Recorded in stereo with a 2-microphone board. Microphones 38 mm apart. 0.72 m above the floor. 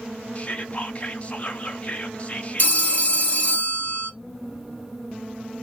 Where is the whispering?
35° left (ahead or behind), 0.7 m.